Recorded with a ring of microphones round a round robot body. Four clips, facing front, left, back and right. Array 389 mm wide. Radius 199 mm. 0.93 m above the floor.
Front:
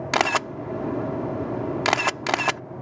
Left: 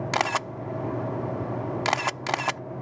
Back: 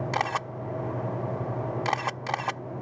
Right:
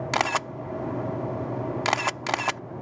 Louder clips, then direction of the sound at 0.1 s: Right 1 dB, front 8 dB; 5° right.